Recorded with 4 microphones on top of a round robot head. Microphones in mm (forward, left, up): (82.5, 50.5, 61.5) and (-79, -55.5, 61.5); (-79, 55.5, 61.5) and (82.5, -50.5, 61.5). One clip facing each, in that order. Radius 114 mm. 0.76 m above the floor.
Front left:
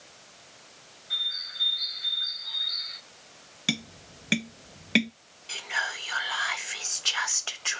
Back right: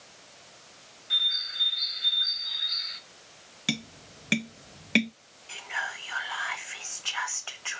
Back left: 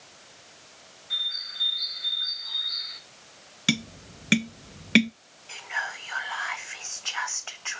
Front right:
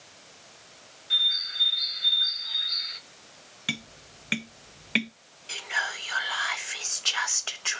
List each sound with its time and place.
1.1 s a bird: 90° right, 1.1 m
3.7 s tapping: 120° left, 0.7 m
5.5 s whispering: 5° left, 0.8 m